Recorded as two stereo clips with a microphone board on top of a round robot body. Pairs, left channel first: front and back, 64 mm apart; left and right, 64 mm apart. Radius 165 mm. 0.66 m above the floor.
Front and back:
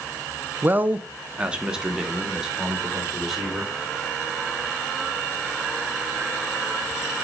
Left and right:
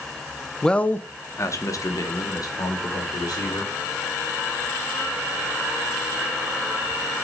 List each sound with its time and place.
0.6 s a man speaking: 160° left, 0.6 m; by 3.7 s 95° left, 2 m